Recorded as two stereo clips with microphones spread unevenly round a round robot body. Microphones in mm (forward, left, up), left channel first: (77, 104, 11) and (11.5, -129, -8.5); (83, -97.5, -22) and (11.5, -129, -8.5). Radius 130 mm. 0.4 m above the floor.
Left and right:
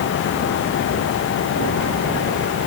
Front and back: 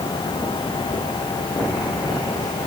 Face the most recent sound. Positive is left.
No sound to turn to.